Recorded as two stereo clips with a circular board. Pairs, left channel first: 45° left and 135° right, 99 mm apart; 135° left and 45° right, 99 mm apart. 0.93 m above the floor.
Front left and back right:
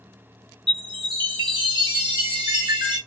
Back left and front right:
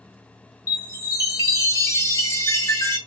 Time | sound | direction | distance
0.7 | a chime | 170° right | 1.6 m